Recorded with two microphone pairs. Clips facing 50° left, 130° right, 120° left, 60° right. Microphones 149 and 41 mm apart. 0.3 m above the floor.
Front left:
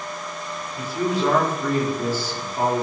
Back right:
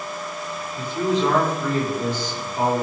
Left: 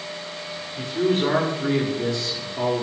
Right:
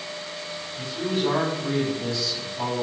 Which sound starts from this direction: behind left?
A man speaking, at 0.8 s.